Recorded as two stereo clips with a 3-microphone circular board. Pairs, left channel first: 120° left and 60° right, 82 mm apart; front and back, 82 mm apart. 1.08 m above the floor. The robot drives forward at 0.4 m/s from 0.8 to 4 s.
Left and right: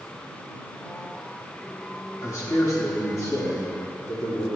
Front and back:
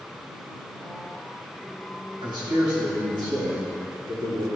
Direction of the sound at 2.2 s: 170° left.